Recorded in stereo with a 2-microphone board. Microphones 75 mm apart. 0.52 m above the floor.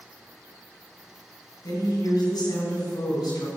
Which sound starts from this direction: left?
A woman speaking, at 1.6 s.